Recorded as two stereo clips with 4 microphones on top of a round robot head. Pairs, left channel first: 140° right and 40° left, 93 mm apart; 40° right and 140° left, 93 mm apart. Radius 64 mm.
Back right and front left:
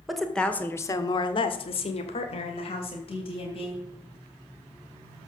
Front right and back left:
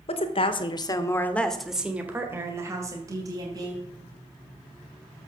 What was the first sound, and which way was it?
A woman speaking, 50° right.